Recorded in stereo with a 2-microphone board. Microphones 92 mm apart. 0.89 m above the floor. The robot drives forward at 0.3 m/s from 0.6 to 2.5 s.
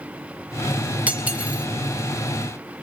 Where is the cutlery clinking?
15° right (ahead or behind), 2.5 m.